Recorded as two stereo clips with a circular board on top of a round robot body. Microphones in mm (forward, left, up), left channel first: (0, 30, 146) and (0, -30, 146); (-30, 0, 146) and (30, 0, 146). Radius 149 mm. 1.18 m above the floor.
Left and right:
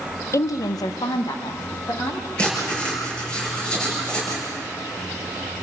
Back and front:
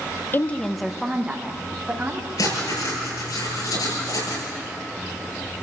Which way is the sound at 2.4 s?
165° left.